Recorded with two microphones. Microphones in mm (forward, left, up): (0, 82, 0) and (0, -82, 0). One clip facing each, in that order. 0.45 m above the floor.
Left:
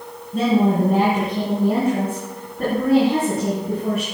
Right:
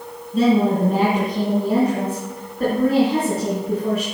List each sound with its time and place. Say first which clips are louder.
0.3 s a woman speaking: right 1 dB; 50° left (ahead or behind), 3 m